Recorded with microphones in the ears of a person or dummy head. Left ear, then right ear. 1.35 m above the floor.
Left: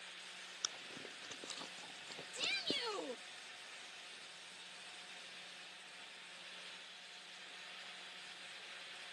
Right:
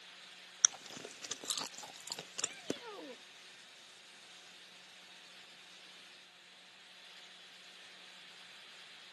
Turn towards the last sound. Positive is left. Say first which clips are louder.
# left 6 dB
turn(degrees=75)  # may be behind; listen again after turning